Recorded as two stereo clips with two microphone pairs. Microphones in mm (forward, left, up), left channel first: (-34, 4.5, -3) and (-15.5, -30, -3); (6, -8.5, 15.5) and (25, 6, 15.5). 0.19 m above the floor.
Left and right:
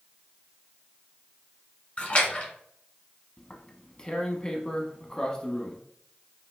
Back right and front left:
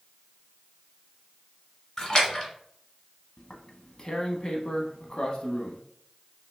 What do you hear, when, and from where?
2.0 s a splash: 160° left, 1.3 m
3.4 s tearing paper: straight behind, 0.7 m